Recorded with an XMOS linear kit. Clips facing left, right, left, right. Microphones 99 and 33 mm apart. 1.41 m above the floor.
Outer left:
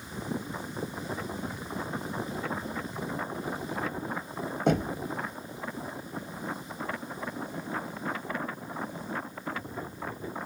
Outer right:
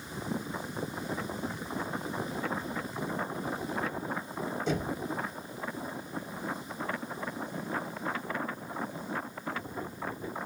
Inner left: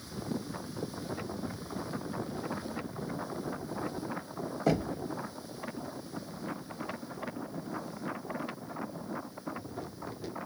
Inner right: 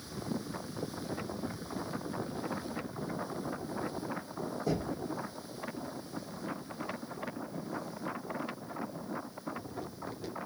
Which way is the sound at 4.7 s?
60° left (ahead or behind).